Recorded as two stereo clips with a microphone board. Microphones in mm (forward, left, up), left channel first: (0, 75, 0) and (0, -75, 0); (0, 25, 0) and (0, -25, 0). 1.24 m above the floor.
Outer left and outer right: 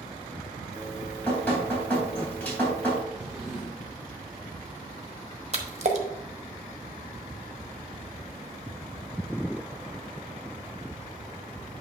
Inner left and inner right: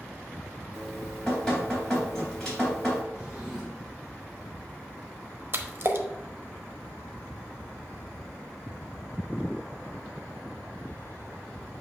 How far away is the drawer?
About 3.5 m.